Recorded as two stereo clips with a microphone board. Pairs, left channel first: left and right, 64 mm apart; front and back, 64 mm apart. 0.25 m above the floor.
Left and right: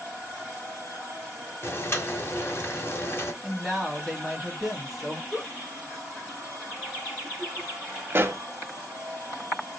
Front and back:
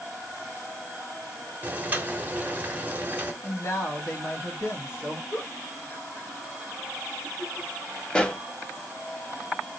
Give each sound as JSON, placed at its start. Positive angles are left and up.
{"t": 1.6, "sound": "boiling", "azimuth_deg": 125, "distance_m": 0.8}
{"t": 3.4, "sound": "a woman speaking", "azimuth_deg": -5, "distance_m": 1.6}
{"t": 5.3, "sound": "a giggle", "azimuth_deg": -15, "distance_m": 1.3}
{"t": 8.1, "sound": "a pop", "azimuth_deg": -70, "distance_m": 0.5}